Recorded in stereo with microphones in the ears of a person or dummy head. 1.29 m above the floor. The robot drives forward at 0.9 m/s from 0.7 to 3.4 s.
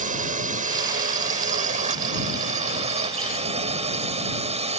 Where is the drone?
45° right (ahead or behind); by 4.8 s 40° right (ahead or behind).